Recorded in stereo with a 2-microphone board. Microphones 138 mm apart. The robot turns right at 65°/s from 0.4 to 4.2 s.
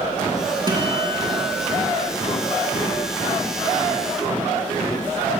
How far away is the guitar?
About 4 m.